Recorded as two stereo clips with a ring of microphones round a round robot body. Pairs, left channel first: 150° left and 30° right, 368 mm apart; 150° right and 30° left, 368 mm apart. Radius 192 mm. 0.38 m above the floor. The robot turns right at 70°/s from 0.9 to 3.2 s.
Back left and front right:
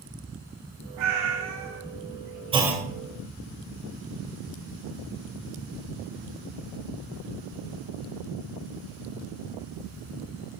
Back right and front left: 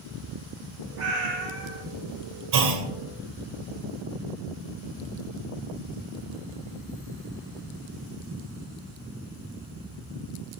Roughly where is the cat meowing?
Ahead right.